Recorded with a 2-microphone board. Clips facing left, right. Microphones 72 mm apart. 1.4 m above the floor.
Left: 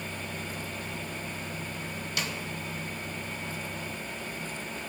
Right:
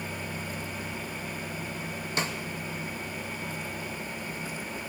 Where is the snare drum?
30° right (ahead or behind), 1.2 m.